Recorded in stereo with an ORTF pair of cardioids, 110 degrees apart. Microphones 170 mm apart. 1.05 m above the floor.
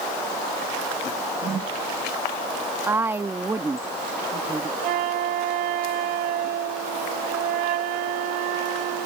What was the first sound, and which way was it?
A whoosh, 35° right.